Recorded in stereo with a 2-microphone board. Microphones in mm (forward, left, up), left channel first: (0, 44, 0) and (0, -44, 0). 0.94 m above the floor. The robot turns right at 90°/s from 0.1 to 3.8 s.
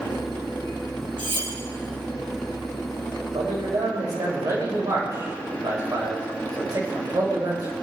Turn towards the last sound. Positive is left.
turn(degrees=-45)